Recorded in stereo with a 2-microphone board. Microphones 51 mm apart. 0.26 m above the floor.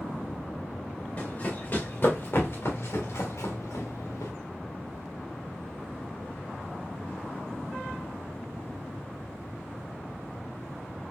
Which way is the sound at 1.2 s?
30° left (ahead or behind).